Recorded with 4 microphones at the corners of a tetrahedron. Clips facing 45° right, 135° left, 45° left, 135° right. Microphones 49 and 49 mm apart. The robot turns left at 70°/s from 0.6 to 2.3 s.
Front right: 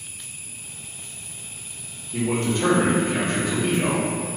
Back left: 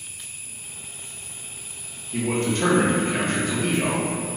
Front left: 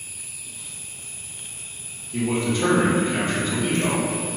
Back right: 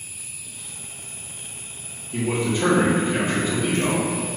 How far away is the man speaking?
About 0.9 m.